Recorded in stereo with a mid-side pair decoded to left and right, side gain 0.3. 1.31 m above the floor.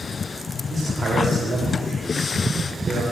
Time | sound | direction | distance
0.7 | a man speaking | 50° right | 6 m